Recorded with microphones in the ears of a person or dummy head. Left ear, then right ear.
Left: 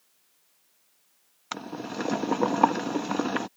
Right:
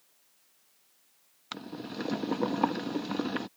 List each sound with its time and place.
1.5 s boiling: 30° left (ahead or behind)